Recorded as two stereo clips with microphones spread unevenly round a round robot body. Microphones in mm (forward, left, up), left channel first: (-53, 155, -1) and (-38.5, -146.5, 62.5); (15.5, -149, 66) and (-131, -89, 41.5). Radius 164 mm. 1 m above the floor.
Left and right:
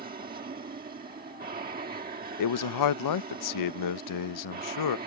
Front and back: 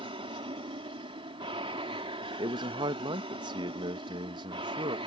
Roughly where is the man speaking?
Left.